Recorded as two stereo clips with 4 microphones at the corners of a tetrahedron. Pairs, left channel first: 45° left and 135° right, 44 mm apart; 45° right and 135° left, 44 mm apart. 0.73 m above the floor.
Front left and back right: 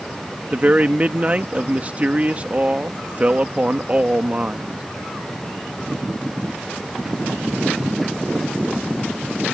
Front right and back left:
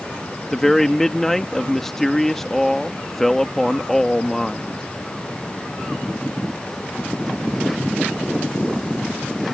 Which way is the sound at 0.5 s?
120° right.